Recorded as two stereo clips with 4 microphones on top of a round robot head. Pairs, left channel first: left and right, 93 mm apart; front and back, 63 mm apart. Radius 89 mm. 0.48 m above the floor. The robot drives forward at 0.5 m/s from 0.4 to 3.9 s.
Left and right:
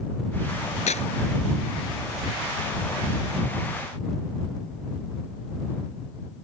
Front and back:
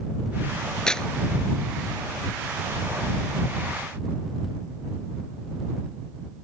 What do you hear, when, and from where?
0.9 s tearing paper: 80° left